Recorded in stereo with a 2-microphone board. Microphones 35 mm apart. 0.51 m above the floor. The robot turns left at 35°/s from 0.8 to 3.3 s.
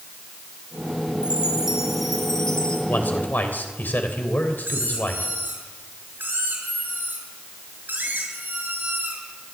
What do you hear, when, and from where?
1.2 s a chime: 155° right, 3.5 m; by 2.8 s 155° left, 3.5 m
2.9 s a man speaking: 60° left (ahead or behind), 2.5 m; by 5.3 s 65° left (ahead or behind), 2.5 m
4.6 s a squeak: 80° right, 6 m